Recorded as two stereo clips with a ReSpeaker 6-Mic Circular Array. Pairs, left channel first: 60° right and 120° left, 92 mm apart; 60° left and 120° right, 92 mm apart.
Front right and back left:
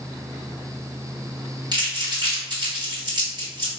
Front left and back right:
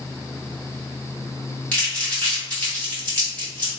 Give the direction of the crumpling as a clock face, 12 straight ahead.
8 o'clock.